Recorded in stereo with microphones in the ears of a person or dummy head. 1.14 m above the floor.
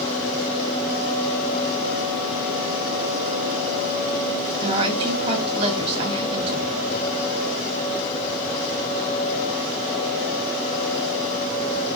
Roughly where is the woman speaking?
Right.